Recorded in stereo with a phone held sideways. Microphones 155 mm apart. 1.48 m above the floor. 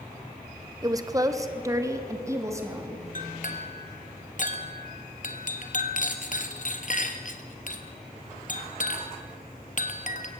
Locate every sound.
0.8 s a woman speaking: 25° right (ahead or behind), 1.1 m; by 3.0 s 20° right (ahead or behind), 3.5 m
3.1 s a clink: 55° left (ahead or behind), 1.8 m